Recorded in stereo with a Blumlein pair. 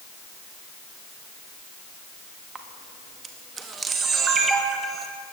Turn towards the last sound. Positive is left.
turn(degrees=-20)